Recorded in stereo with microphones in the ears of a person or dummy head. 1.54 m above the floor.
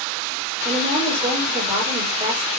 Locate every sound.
0.7 s a woman speaking: 20° right (ahead or behind), 4 m